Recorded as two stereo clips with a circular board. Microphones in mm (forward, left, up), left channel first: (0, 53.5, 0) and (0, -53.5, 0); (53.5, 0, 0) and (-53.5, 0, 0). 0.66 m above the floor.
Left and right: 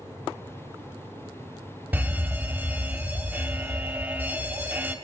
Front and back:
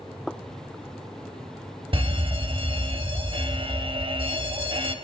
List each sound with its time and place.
1.9 s a fire alarm: 165° right, 2.5 m